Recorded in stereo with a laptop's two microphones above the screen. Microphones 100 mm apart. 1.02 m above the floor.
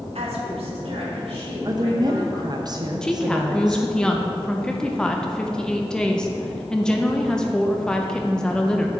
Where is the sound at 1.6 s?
40° right (ahead or behind), 0.6 m.